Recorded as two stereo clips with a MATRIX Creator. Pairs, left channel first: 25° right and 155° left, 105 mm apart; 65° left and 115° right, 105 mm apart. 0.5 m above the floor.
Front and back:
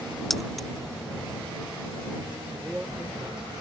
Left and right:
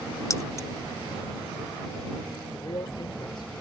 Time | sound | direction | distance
0.3 | keys jangling | 65° left | ?
2.5 | a man speaking | 80° left | ?